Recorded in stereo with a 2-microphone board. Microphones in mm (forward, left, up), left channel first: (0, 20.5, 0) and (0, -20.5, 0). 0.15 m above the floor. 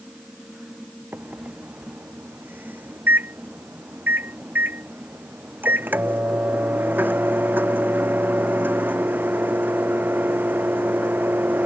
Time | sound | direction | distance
1.1 | a microwave | 50° right (ahead or behind) | ?